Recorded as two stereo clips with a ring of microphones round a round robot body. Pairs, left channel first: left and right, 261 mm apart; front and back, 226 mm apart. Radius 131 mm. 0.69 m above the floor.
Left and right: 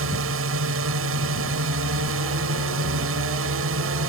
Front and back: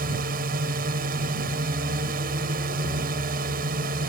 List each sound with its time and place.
0.0 s a drone: 125° right